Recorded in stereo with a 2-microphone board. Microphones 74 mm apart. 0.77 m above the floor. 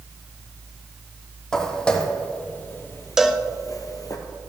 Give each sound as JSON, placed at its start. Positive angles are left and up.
{"t": 1.5, "sound": "footsteps", "side_deg": 10, "distance_m": 1.8}
{"t": 3.2, "sound": "a cowbell", "side_deg": -5, "distance_m": 0.7}